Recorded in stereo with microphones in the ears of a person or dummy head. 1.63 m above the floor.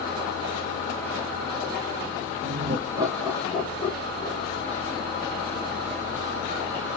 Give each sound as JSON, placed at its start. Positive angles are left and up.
{"t": 2.4, "sound": "laughter", "side_deg": -40, "distance_m": 0.8}